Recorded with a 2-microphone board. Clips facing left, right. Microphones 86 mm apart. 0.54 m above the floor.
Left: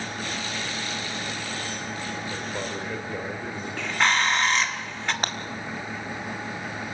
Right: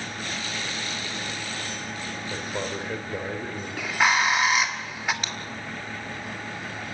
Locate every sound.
2.3 s a man speaking: 10° right (ahead or behind), 2.5 m
3.8 s a bird: 5° right (ahead or behind), 1.5 m
5.2 s breaking glass: 50° left (ahead or behind), 1.9 m